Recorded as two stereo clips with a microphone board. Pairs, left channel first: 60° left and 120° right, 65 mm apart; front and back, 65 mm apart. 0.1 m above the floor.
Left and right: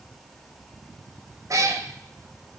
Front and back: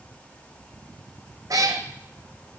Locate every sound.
1.5 s a cat meowing: 155° right, 0.7 m